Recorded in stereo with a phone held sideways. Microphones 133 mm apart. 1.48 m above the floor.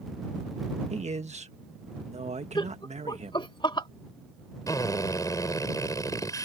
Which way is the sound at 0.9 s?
60° right (ahead or behind).